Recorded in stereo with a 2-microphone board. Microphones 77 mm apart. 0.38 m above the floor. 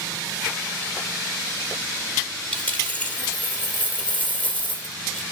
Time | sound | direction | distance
2.5 | a dropped coin | 20° left (ahead or behind) | 3 m